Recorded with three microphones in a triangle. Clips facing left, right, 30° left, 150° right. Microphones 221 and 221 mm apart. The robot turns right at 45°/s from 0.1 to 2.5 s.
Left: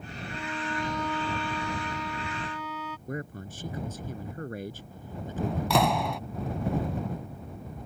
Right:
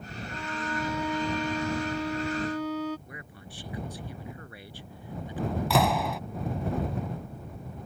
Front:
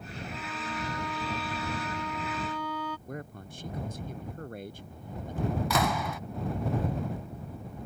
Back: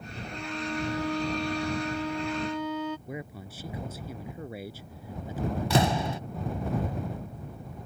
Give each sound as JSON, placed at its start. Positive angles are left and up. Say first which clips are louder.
{"t": 0.3, "sound": "a violin", "louder": "even, back 7 dB", "azimuth_deg": 165}
{"t": 3.1, "sound": "a man speaking", "louder": "left 10 dB, back 2 dB", "azimuth_deg": 130}
{"t": 5.7, "sound": "a door slam", "louder": "even, back 4 dB", "azimuth_deg": 180}